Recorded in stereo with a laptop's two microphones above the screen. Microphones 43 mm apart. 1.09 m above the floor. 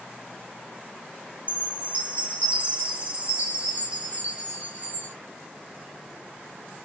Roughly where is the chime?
Right.